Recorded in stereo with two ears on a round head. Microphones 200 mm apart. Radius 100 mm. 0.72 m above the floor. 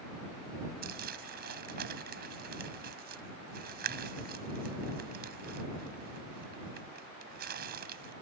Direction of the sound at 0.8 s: 45° right (ahead or behind).